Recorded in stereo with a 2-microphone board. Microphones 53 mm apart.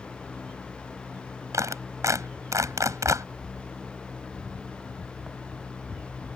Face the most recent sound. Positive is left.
turn(degrees=-75)  # may be behind; listen again after turning